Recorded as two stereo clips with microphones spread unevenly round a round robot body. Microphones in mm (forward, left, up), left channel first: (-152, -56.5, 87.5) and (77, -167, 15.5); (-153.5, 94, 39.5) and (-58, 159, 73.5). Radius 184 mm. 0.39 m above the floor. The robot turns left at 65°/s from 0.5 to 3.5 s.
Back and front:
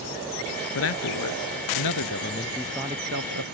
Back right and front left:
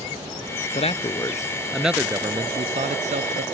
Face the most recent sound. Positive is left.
turn(degrees=10)